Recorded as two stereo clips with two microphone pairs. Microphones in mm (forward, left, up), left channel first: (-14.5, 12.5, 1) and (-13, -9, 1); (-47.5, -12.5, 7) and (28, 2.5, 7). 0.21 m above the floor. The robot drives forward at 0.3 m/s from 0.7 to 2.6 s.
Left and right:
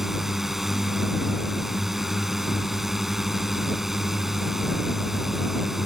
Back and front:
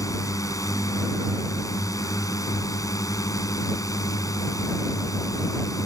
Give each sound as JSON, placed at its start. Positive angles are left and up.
{"t": 0.0, "sound": "a drone", "azimuth_deg": -155}